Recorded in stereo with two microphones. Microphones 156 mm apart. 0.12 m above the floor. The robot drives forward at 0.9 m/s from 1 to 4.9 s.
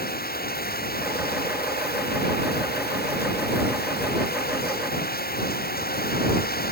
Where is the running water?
80° left.